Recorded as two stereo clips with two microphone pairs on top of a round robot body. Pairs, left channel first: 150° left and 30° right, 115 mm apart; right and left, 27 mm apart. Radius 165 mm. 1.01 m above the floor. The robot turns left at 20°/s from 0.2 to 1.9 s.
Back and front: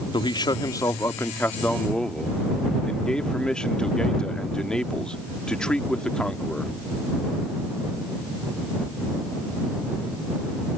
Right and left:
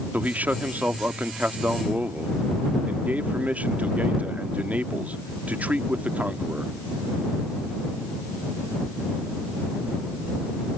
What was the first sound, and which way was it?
A man speaking, 105° left.